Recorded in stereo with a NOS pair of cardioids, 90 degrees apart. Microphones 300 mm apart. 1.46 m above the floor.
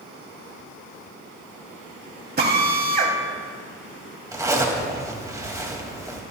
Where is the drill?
35° right, 2.5 m.